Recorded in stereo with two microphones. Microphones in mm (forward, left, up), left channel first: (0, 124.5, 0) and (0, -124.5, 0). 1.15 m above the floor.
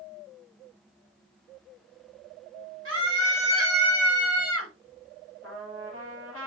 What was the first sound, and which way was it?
A scream, 55° right (ahead or behind).